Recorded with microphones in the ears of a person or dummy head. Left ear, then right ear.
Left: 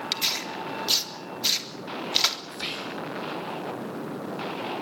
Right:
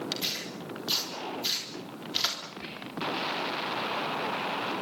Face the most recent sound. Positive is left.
turn(degrees=70)  # may be behind; listen again after turning